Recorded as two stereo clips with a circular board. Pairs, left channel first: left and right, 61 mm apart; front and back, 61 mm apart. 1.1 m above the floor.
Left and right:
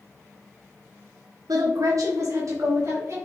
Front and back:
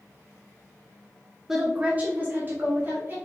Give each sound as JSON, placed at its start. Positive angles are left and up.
{"t": 1.5, "sound": "a woman speaking", "azimuth_deg": -95, "distance_m": 0.6}